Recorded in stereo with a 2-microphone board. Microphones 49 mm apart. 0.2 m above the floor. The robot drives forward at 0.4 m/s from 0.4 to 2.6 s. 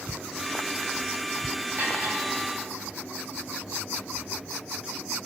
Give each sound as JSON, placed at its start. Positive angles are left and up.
{"t": 1.8, "sound": "cutlery clinking", "side_deg": -45, "distance_m": 7.0}